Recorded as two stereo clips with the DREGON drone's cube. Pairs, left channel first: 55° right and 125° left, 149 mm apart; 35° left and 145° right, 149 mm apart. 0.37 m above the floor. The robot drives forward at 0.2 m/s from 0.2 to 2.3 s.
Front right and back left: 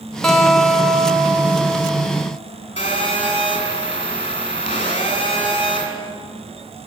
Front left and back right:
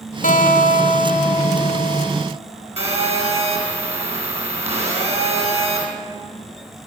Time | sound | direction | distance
0.2 | a guitar | 30° left | 0.9 m
2.8 | a phone buzzing | 105° right | 2.5 m